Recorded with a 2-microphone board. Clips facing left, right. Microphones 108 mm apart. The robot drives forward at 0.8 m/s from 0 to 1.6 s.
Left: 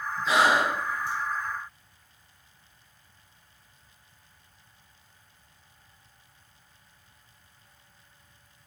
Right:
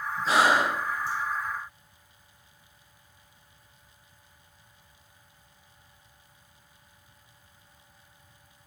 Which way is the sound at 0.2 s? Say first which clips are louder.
Even; 40° right (ahead or behind).